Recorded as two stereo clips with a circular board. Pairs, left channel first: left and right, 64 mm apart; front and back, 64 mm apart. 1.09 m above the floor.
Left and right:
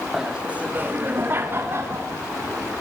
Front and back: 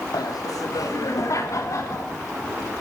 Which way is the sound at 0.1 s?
5° right.